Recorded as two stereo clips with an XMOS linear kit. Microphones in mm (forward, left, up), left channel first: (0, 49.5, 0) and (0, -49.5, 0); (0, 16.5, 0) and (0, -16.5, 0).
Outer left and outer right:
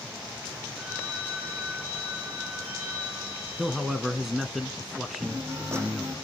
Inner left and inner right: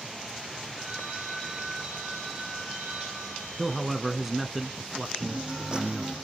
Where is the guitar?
30° right (ahead or behind), 7.5 m.